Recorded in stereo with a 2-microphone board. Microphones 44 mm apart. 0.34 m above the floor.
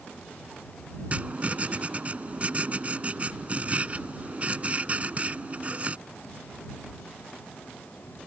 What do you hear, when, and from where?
1.1 s writing: 35° right (ahead or behind)